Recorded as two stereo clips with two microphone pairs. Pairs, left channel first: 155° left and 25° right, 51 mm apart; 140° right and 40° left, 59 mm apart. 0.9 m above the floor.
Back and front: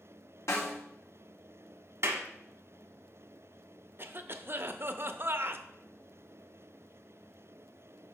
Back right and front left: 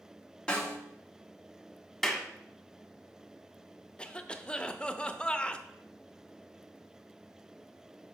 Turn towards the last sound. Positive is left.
turn(degrees=-70)